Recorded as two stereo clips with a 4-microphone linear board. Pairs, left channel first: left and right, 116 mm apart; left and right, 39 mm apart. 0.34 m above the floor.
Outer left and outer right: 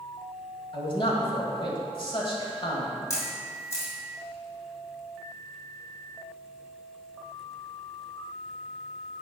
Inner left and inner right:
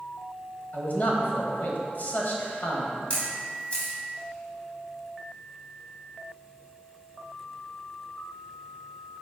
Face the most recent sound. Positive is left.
turn(degrees=25)  # may be behind; listen again after turning